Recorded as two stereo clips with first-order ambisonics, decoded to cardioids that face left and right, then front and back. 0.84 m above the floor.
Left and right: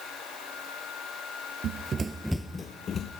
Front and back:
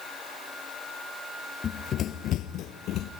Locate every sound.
1.6 s running footsteps: 60° right, 1.1 m; by 3.1 s 35° left, 1.4 m